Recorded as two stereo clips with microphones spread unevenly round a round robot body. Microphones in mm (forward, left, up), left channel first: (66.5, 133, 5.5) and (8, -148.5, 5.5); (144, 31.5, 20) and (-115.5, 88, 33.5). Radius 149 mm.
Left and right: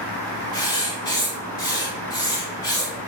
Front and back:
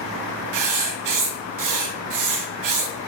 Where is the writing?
155° left, 0.6 m.